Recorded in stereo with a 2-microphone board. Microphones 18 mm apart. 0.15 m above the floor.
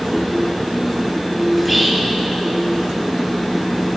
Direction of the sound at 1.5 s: 10° left (ahead or behind).